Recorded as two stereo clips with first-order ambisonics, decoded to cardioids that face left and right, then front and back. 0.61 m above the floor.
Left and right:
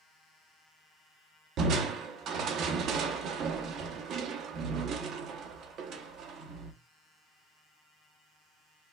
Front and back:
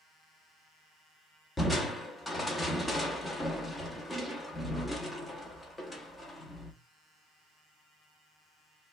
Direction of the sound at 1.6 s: 80° right.